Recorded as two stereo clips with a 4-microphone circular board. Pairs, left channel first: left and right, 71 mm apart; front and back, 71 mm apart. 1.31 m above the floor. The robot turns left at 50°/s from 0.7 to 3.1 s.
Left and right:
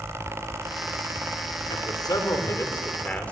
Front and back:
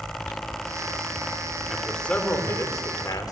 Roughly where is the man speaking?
Left.